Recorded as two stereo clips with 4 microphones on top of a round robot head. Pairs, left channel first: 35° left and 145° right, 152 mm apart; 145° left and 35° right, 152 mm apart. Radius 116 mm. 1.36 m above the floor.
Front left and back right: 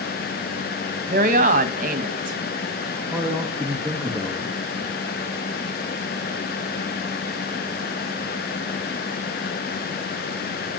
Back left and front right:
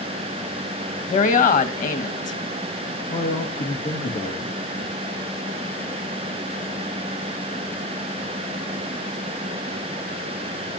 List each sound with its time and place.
1.1 s a woman speaking: straight behind, 1.9 m
3.0 s a man speaking: 120° left, 2.5 m